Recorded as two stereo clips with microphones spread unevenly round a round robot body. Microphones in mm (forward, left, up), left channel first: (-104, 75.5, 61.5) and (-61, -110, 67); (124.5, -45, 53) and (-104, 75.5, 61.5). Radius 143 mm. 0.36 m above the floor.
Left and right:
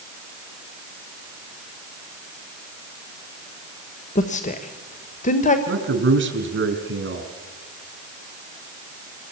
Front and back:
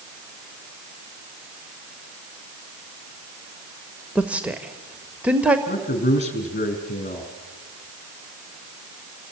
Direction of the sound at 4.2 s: 65° left.